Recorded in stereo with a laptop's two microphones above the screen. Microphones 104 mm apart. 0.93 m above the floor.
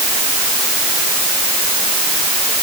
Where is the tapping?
No tapping in this recording.